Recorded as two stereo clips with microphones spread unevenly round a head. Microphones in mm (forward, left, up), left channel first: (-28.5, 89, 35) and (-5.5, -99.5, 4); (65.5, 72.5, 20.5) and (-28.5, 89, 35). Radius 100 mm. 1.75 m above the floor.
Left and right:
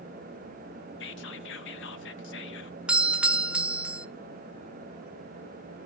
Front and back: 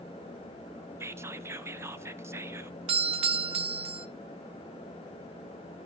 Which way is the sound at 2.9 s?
160° right.